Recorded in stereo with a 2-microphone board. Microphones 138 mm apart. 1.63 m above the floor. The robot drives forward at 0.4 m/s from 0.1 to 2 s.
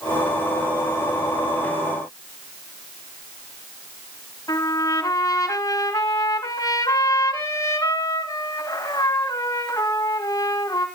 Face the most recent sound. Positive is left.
turn(degrees=25)  # may be behind; listen again after turning